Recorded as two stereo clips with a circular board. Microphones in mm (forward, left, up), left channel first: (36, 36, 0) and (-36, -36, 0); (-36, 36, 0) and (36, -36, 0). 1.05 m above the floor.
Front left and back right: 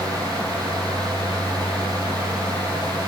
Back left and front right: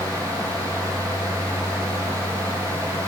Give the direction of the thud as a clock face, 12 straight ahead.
I don't hear a thud.